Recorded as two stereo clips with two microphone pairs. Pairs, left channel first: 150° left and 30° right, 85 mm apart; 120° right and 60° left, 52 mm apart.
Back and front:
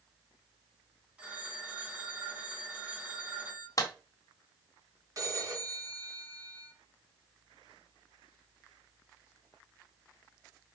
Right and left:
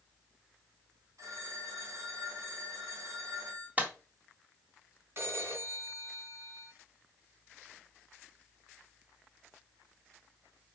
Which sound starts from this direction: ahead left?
A phone ringing, at 1.2 s.